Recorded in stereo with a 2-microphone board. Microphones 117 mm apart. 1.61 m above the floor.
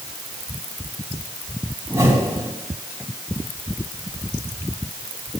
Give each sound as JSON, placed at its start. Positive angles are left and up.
{"t": 1.9, "sound": "a whoosh", "side_deg": -25, "distance_m": 4.5}